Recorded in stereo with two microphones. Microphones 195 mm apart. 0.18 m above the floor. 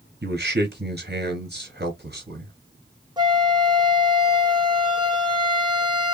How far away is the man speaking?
About 2.5 m.